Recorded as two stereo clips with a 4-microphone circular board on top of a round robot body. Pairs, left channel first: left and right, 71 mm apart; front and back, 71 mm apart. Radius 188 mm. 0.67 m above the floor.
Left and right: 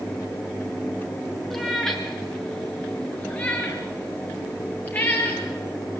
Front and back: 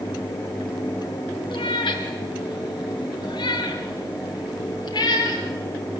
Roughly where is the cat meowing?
Ahead.